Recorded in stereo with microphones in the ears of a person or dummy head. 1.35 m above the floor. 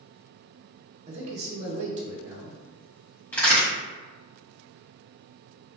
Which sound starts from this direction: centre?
A crack, at 3.3 s.